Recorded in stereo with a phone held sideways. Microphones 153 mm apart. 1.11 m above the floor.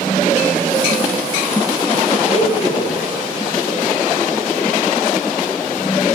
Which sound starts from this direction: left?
A blender, at 2.2 s.